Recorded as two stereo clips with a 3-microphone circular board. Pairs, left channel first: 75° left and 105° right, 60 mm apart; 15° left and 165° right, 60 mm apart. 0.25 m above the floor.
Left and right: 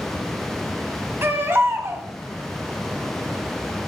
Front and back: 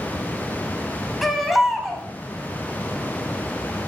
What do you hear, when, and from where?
1.2 s a baby crying: 80° right, 1.3 m